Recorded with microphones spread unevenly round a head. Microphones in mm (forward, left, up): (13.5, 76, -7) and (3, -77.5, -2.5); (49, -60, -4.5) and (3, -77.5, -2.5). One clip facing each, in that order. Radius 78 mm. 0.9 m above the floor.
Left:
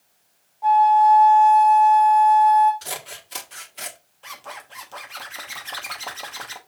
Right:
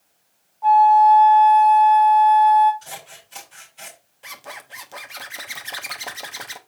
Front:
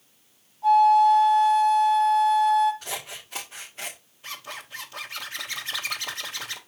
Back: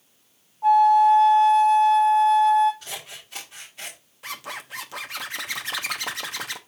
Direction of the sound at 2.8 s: 100° left.